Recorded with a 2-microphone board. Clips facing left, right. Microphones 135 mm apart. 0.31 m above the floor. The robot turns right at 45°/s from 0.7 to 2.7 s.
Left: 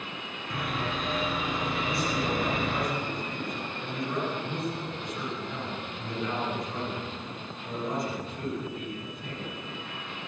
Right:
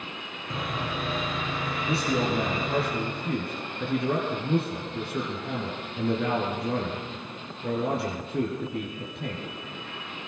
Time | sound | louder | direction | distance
0.5 | sawing | even | 20° right | 6 m
1.9 | a man speaking | right 6 dB | 115° right | 5.5 m